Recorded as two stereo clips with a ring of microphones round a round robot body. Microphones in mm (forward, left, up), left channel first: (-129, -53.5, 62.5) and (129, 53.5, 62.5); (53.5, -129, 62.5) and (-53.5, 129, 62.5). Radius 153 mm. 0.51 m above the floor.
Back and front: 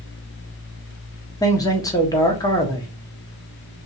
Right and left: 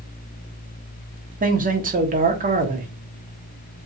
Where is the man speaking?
135° left, 0.9 m.